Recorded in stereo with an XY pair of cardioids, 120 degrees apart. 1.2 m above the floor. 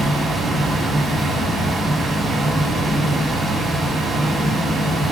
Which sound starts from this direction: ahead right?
A fan, at 0.0 s.